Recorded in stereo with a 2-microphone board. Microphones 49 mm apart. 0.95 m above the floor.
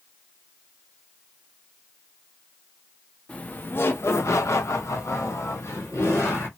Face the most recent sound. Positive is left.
turn(degrees=60)  # may be behind; listen again after turning